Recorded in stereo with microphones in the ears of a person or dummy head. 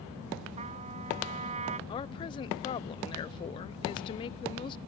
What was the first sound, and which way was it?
A trumpet, 35° right (ahead or behind).